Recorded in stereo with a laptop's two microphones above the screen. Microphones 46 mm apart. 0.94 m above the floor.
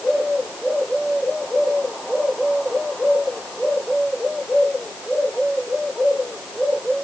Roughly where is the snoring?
No snoring in this recording.